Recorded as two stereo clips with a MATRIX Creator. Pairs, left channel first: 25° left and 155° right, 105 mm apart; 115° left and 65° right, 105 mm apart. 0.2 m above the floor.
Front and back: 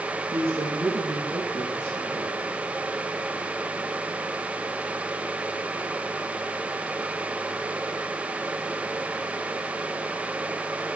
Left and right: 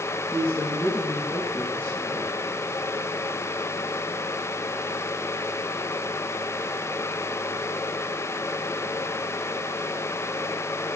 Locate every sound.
0.3 s a woman speaking: 135° right, 5 m